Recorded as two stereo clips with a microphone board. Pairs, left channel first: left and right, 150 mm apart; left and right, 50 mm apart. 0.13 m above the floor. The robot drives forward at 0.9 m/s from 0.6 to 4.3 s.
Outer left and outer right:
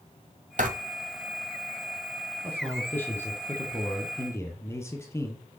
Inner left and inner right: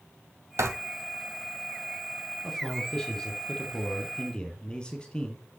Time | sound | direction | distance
0.6 | writing | 55° right (ahead or behind) | 1.5 m
2.4 | a man speaking | 10° left (ahead or behind) | 4.5 m